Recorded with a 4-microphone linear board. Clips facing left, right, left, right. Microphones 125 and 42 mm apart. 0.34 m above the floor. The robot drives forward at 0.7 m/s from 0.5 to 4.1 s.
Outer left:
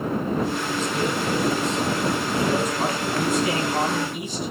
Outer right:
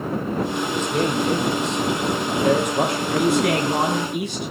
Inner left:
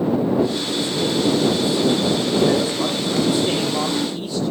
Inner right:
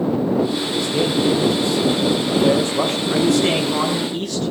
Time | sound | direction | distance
0.7 | a man speaking | 65° right (ahead or behind) | 10 m
3.1 | a man speaking | 75° right (ahead or behind) | 5 m